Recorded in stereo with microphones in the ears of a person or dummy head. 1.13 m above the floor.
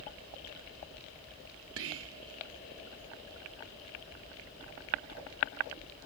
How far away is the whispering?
About 0.8 m.